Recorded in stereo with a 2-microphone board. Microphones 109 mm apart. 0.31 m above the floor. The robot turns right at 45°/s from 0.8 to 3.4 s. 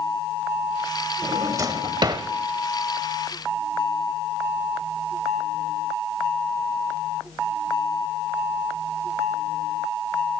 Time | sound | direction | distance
1.2 | a drawer | 25° right (ahead or behind) | 0.7 m